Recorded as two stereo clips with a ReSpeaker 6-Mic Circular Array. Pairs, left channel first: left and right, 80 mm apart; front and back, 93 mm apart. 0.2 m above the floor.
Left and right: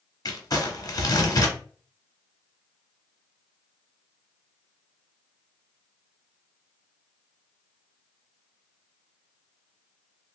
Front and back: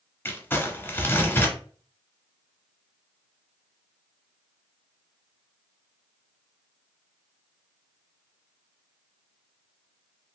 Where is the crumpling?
65° left, 0.9 m.